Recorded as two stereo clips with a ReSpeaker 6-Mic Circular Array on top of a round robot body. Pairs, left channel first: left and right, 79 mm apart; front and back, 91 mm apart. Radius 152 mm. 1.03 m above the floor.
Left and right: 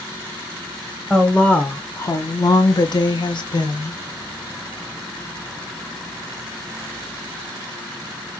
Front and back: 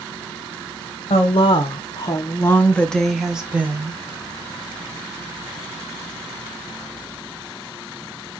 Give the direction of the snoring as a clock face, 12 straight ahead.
No snoring in this recording.